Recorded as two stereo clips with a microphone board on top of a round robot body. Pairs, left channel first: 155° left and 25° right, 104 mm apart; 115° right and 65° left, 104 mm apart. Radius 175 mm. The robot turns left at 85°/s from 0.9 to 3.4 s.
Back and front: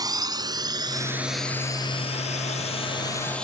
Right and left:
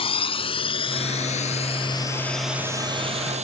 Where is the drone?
75° right; by 3.4 s 75° left.